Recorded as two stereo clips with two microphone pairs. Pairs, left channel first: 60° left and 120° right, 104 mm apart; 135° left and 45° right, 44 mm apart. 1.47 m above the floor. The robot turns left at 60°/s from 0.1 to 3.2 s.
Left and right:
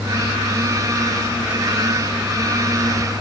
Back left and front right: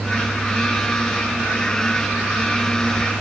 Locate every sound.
Only background noise.